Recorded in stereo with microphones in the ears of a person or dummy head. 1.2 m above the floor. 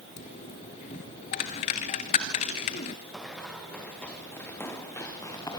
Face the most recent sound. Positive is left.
turn(degrees=15)  # may be behind; listen again after turning